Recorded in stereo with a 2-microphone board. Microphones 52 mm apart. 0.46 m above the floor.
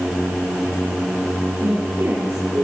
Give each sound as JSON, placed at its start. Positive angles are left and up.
{"t": 1.6, "sound": "a woman speaking", "side_deg": -60, "distance_m": 8.0}